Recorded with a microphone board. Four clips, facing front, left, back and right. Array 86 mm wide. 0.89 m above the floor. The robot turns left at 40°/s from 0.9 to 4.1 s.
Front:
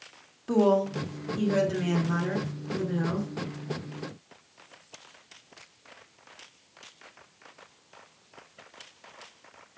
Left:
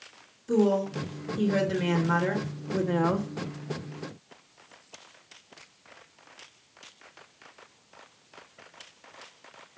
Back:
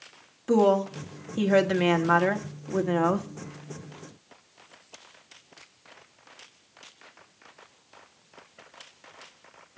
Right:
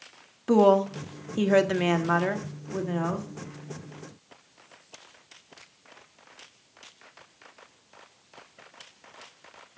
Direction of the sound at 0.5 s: 100° right.